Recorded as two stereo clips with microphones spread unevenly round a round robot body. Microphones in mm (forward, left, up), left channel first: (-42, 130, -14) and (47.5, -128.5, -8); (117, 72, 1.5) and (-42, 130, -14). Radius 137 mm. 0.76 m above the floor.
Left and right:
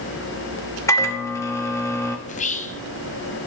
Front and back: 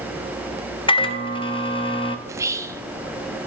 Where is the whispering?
125° left, 0.6 m.